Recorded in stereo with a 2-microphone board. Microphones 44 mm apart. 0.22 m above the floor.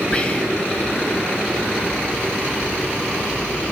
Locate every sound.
0.1 s whispering: 25° left (ahead or behind), 1.1 m